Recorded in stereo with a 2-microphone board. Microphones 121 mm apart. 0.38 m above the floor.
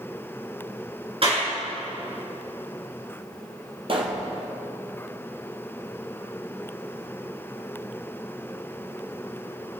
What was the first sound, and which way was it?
A clap, 50° right (ahead or behind).